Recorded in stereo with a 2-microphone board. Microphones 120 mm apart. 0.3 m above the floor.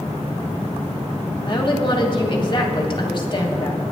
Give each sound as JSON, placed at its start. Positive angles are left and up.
{"t": 1.5, "sound": "a woman speaking", "side_deg": 40, "distance_m": 1.6}